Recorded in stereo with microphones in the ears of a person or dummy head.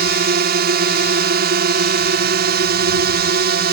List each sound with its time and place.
0.0 s a drone: 55° right (ahead or behind)